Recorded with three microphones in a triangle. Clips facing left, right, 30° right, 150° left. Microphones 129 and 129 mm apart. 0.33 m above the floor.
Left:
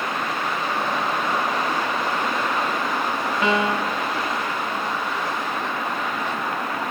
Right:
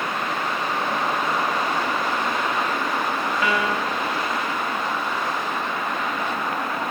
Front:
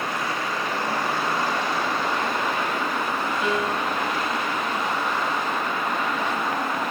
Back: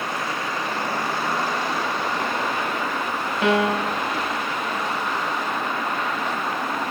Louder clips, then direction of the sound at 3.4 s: Left 4 dB, back 8 dB; 150° left.